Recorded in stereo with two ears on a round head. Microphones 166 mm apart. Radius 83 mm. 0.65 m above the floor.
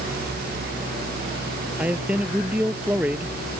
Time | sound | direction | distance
1.8 | a man speaking | 5° right (ahead or behind) | ?